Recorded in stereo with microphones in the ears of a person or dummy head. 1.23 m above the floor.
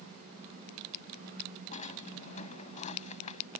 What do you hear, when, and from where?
1.7 s a drawer: 40° left (ahead or behind)